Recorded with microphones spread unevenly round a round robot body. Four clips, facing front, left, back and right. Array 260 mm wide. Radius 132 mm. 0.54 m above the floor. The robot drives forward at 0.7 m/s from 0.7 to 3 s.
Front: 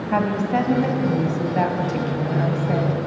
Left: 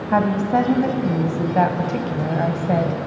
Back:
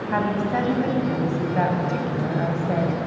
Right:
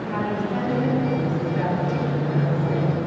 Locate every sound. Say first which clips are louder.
0.1 s a woman speaking: left 8 dB, front 2 dB; 65° left, 4 m; by 3.1 s 90° left, 4 m